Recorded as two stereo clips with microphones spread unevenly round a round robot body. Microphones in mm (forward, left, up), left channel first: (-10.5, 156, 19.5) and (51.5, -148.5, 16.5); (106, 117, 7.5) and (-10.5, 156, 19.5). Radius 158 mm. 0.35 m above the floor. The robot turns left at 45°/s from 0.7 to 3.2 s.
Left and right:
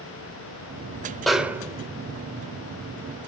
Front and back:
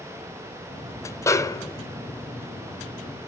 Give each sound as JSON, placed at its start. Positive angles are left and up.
{"t": 1.3, "sound": "a snare drum", "azimuth_deg": 10, "distance_m": 1.4}